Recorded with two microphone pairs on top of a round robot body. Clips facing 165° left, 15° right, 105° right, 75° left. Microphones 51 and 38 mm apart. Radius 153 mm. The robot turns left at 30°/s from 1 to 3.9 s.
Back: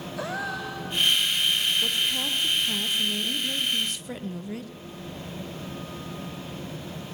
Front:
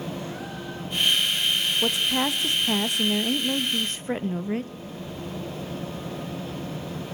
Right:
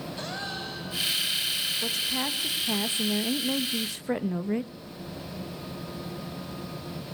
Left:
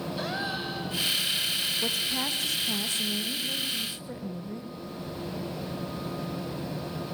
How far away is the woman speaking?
About 1.4 m.